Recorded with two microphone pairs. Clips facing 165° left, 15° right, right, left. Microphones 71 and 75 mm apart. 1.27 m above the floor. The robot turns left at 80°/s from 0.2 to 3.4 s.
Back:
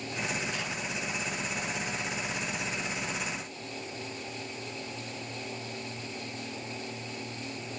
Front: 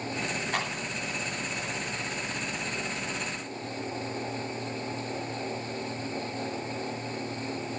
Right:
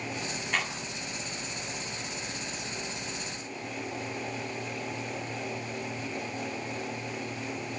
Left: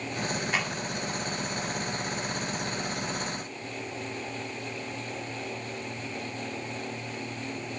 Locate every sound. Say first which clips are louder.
0.5 s a clap: front 5 dB, right 1 dB; 10° left, 9 m; by 0.7 s 5° right, 9 m